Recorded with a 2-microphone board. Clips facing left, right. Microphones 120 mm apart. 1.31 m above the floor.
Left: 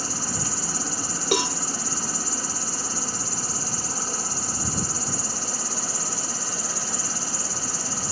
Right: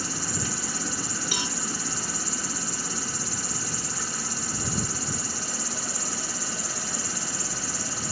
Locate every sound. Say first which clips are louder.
0.0 s an insect: left 1 dB; 35° left (ahead or behind)
1.3 s a cowbell: left 14 dB; 65° left (ahead or behind)